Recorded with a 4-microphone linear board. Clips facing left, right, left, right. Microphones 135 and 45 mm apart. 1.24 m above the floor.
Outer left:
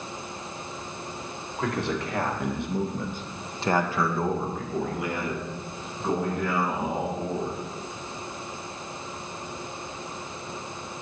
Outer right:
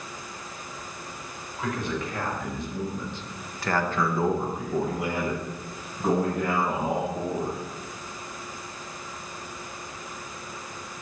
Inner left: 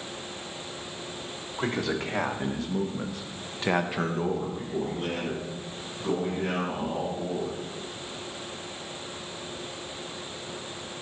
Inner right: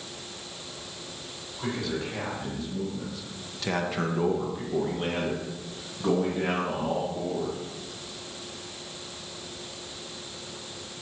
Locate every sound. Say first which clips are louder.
1.6 s a man speaking: outer left 2 dB, inner left 2 dB; 80° left, 1.7 m; by 7.6 s 55° right (ahead or behind), 3 m